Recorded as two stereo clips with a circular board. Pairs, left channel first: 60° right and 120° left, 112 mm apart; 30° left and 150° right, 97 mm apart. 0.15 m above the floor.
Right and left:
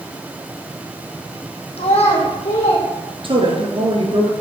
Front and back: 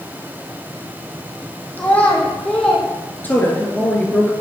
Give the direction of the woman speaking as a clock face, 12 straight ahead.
9 o'clock.